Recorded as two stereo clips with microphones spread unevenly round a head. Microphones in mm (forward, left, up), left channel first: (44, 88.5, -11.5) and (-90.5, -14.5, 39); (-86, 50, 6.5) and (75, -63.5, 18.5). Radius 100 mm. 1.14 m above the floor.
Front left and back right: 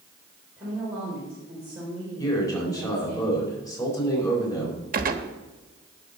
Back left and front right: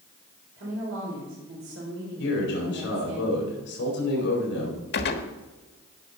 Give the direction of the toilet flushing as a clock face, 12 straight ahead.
I don't hear a toilet flushing.